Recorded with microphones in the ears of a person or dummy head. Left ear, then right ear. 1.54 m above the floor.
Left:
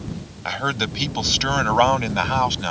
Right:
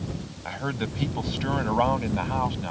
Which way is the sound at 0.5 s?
45° left (ahead or behind).